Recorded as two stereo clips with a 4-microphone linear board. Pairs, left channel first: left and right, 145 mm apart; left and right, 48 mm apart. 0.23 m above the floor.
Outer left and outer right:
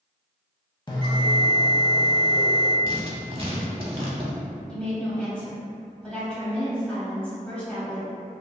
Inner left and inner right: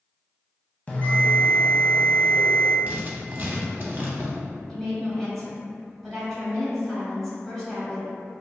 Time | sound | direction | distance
0.9 | a bell | 30° left (ahead or behind) | 0.6 m
2.9 | writing | 40° right (ahead or behind) | 0.6 m
4.7 | a woman speaking | 10° left (ahead or behind) | 1.0 m